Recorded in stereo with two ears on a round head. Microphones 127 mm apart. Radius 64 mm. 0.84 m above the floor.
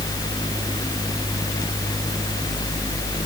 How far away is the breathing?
No breathing in this recording.